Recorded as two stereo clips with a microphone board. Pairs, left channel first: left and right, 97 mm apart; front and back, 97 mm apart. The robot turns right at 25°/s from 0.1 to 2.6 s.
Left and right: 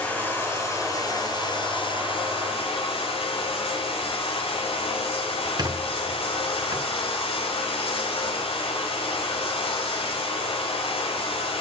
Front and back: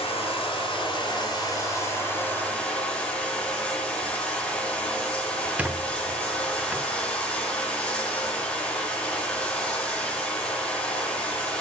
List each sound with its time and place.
0.0 s running water: 15° left, 6 m; by 11.6 s 80° left, 6 m
5.6 s a squeak: 115° right, 0.6 m